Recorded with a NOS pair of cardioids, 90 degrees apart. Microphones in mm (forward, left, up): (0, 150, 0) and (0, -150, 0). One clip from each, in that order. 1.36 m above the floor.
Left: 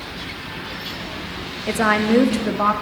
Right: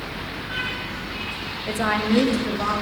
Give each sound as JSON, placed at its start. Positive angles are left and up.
{"t": 1.7, "sound": "a woman speaking", "azimuth_deg": 20, "distance_m": 0.6}